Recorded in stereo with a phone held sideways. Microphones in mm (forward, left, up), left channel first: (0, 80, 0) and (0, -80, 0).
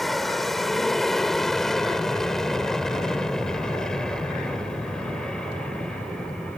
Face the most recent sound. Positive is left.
turn(degrees=5)  # may be behind; listen again after turning